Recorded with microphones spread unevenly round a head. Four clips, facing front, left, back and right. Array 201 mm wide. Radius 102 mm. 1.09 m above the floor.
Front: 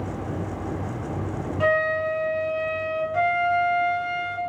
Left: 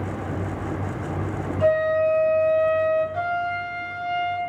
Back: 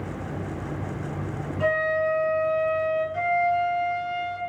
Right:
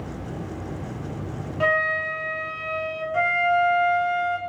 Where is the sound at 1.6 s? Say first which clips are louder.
Left 5 dB, front 1 dB; 65° right, 1.8 m.